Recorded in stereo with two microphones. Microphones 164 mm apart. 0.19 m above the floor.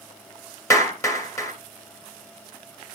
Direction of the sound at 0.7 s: 20° left (ahead or behind).